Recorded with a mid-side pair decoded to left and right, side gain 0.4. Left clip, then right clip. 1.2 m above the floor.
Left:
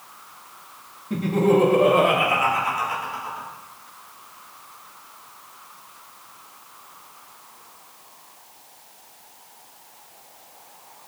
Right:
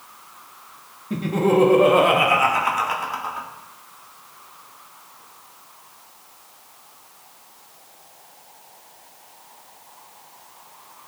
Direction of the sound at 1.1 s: 15° right.